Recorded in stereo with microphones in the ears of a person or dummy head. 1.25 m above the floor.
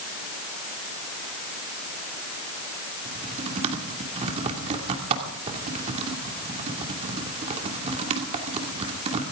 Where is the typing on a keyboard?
35° right (ahead or behind), 2.5 m.